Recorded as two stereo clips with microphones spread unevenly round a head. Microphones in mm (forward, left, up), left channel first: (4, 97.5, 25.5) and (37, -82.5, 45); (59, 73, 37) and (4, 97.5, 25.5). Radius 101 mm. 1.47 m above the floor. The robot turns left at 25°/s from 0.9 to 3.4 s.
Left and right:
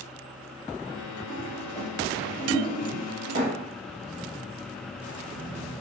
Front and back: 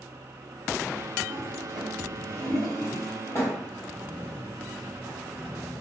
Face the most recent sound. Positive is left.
turn(degrees=-75)